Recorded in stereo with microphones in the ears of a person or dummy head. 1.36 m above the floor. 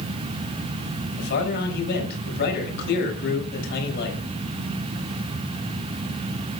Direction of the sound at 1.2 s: 55° left (ahead or behind).